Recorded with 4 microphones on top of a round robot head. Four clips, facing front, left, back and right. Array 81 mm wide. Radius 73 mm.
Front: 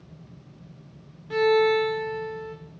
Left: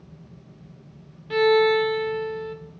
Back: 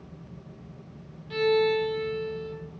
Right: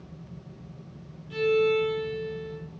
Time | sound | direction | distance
1.3 | a violin | 65° left | 1.1 m